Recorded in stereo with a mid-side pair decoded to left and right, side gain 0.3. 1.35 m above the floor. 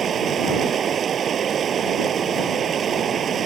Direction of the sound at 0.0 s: 70° right.